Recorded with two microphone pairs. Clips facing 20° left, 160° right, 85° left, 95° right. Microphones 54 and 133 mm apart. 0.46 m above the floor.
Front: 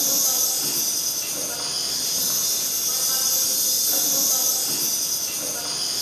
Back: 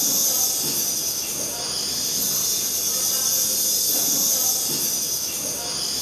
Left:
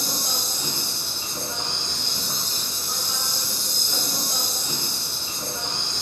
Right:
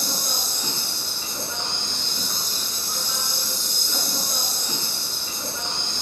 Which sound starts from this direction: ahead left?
An insect, at 0.0 s.